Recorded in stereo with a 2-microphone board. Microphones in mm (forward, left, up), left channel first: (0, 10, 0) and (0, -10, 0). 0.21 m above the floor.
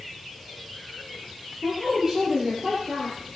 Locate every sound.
1.6 s a woman speaking: 20° right (ahead or behind), 5 m